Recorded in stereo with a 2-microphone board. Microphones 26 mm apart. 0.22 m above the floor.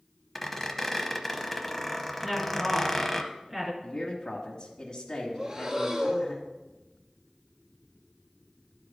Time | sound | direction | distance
0.3 | a squeak | 15° left (ahead or behind) | 0.8 m
2.2 | a woman speaking | 10° right (ahead or behind) | 2.5 m
3.8 | a man speaking | 35° left (ahead or behind) | 1.3 m
5.3 | breathing | 35° right (ahead or behind) | 0.8 m